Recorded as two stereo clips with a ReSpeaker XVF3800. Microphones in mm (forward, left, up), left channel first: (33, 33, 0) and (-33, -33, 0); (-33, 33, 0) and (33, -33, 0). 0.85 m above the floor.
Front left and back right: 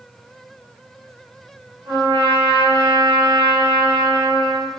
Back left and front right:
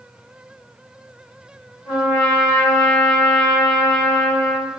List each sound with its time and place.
1.9 s a trumpet: 145° right, 1.4 m